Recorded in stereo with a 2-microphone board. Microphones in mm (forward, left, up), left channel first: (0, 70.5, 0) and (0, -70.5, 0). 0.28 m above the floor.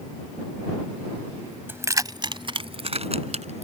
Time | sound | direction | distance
1.7 | keys jangling | 15° right (ahead or behind) | ?